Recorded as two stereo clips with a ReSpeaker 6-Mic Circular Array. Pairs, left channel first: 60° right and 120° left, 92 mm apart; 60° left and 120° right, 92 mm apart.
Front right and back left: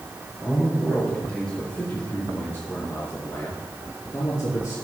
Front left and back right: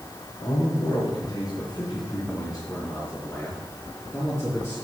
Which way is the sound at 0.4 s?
25° left.